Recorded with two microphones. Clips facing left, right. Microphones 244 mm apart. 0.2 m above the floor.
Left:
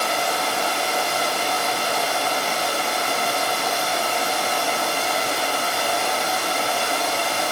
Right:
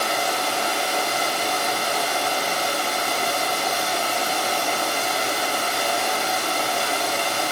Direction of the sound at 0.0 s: 25° left (ahead or behind).